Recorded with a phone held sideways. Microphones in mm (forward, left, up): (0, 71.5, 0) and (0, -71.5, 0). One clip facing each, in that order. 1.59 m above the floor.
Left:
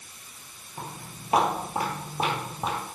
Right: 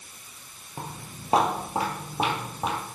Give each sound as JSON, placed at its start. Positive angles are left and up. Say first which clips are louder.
{"t": 0.8, "sound": "footsteps", "louder": "right 1 dB", "side_deg": -35, "distance_m": 2.5}